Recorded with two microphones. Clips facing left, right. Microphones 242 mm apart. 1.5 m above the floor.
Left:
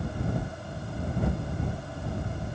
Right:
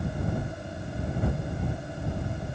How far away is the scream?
I don't hear a scream.